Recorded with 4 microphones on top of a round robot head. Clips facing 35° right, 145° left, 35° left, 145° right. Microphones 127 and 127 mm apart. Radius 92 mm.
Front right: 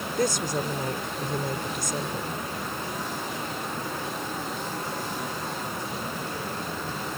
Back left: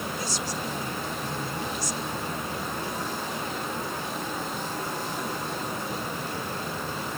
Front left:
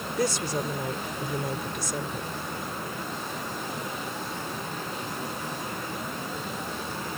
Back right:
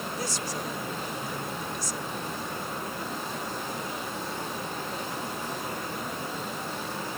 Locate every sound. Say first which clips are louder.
0.2 s a woman speaking: front right 6 dB, front left 10 dB; 5° left